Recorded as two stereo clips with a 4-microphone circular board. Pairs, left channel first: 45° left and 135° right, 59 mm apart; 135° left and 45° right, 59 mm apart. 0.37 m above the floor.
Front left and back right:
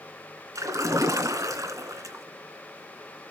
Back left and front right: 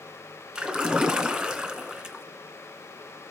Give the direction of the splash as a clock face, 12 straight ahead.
4 o'clock.